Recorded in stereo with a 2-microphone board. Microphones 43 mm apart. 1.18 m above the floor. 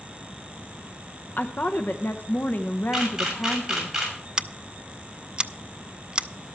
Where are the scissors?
25° right (ahead or behind), 0.5 m.